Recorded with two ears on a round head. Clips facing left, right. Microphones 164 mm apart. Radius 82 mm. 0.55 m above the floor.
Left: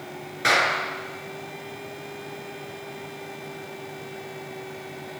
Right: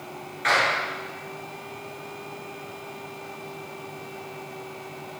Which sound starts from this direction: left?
A clap, at 0.4 s.